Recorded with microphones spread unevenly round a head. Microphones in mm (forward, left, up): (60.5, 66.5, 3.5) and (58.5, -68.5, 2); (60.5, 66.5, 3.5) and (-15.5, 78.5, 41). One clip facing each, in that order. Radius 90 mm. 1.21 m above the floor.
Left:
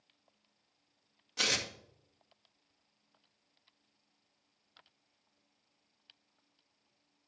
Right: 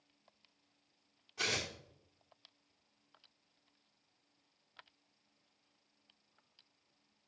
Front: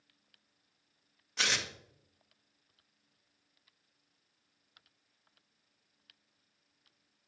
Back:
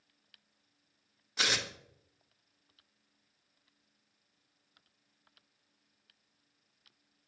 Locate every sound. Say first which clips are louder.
1.4 s tearing paper: left 2 dB, back 1 dB; 90° left, 1.5 m